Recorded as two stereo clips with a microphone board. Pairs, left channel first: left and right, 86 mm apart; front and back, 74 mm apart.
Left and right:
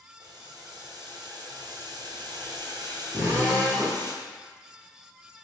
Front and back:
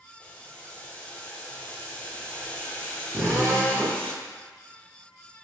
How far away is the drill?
About 1.6 m.